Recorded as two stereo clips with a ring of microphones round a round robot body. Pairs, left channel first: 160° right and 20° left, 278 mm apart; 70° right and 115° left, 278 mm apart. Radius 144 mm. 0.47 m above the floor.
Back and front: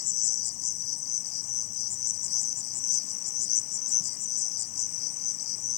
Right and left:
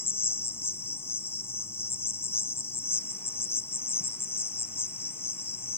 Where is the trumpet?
No trumpet in this recording.